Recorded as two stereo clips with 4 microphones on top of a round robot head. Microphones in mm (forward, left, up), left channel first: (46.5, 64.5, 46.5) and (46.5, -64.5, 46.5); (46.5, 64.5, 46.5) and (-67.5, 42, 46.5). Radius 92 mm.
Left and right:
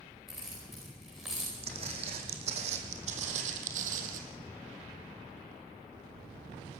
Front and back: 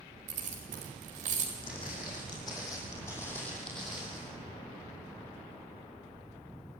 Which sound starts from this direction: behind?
Keys jangling, at 0.3 s.